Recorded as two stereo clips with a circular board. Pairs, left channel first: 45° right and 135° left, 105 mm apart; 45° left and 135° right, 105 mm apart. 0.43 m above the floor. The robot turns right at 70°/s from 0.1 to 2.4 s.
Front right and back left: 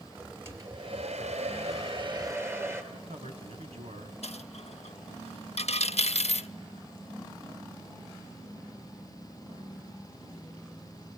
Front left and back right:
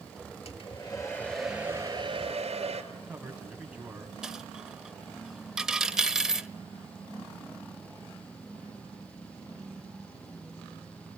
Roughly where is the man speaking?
Behind left.